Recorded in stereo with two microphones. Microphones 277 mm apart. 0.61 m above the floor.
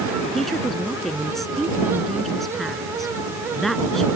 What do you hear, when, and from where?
0.3 s a woman speaking: centre (ahead or behind)